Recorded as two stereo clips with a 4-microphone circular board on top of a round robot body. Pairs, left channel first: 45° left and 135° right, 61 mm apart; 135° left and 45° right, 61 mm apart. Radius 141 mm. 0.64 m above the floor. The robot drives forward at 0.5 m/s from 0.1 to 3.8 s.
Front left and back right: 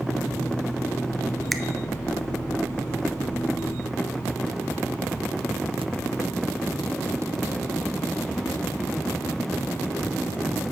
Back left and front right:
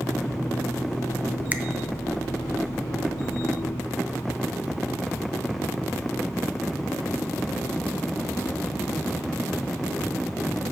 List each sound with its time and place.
1.5 s a finger snap: 40° right, 0.8 m; by 1.6 s 45° right, 0.8 m